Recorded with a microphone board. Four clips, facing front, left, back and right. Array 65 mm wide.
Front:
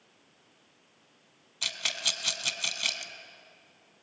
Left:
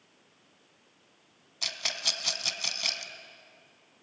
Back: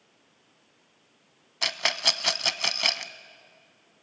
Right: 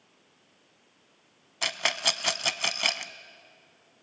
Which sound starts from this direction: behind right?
A rattle, at 1.6 s.